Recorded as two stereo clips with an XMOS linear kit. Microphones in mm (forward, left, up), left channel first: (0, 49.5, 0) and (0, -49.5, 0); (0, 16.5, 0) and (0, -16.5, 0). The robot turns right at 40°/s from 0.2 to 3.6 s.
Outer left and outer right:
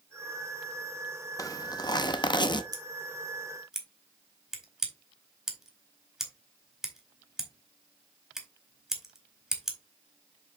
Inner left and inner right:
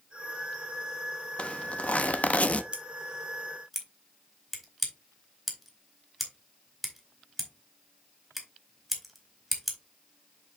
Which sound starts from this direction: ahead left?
A zipper, at 1.4 s.